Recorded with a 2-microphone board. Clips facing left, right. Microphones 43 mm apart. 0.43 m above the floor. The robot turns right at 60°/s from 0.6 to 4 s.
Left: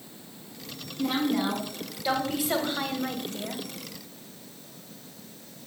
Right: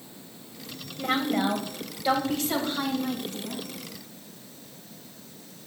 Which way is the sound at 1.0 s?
75° right.